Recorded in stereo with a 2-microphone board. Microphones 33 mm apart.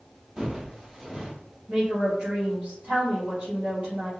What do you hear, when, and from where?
0.4 s footsteps: 15° right (ahead or behind), 1.9 m
1.7 s a woman speaking: 55° right (ahead or behind), 1.8 m